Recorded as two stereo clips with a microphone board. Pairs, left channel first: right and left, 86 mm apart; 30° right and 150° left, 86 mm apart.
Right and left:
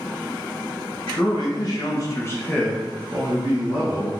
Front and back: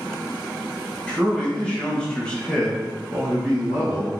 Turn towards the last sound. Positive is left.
turn(degrees=65)